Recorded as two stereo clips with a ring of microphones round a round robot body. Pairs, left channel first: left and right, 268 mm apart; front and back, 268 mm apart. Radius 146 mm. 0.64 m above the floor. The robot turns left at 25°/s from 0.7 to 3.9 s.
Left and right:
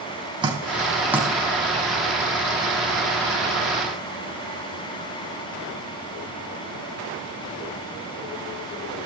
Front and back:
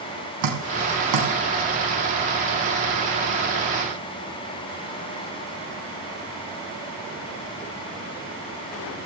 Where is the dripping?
165° right, 3.5 m; by 1.3 s 175° right, 3.5 m.